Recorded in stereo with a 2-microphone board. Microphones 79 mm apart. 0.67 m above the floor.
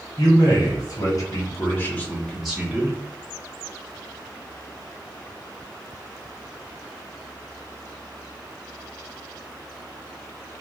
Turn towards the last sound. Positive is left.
turn(degrees=-20)  # may be behind; listen again after turning